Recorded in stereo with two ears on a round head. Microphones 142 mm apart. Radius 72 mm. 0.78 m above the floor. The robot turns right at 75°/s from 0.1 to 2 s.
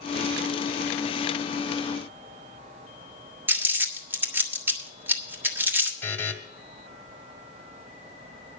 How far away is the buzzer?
About 1.7 m.